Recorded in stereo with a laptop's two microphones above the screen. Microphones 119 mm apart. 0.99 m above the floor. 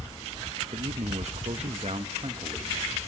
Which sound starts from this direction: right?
A man speaking, at 0.7 s.